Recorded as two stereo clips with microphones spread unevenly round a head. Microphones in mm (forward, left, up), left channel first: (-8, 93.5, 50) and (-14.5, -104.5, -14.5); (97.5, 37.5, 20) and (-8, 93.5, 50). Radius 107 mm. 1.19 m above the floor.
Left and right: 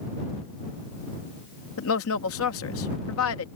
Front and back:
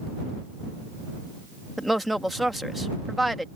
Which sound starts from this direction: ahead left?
A woman speaking, at 1.8 s.